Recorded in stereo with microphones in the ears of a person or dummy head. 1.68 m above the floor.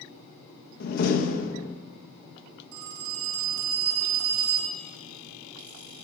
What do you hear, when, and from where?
0.8 s a door slam: 50° left (ahead or behind), 1.7 m
2.7 s a phone ringing: 75° right (ahead or behind), 3 m